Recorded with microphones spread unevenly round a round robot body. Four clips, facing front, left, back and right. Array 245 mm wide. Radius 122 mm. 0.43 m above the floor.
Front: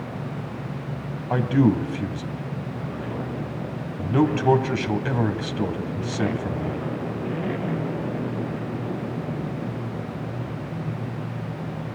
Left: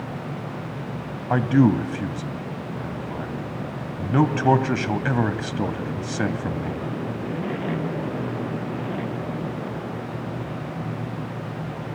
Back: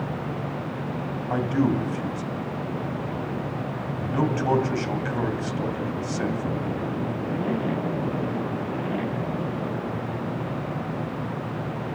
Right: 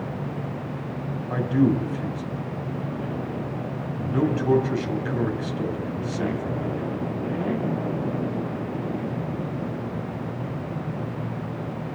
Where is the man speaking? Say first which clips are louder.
Left 3 dB, front 4 dB; 70° left, 2.5 m.